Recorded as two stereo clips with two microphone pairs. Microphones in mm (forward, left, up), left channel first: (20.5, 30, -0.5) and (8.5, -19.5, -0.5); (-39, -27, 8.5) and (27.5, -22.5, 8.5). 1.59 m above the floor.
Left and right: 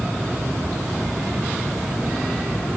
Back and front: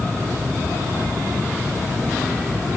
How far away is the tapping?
No tapping in this recording.